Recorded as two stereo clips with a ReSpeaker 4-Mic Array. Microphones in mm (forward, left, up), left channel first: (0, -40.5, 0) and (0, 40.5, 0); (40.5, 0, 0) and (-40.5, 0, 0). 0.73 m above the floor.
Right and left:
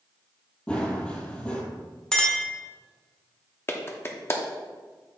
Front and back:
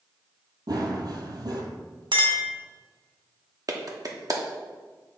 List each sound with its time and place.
0.7 s running footsteps: 165° right, 1.2 m
2.1 s a clink: 170° right, 1.2 m
3.7 s a clap: 145° right, 0.9 m